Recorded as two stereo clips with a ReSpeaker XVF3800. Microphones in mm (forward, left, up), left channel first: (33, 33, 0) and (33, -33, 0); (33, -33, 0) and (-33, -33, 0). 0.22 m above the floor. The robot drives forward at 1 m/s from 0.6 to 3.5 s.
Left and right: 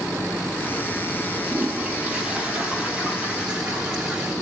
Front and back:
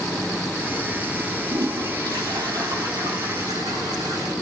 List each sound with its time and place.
1.5 s a toilet flushing: 160° right, 2.5 m; by 4.3 s 170° right, 4.5 m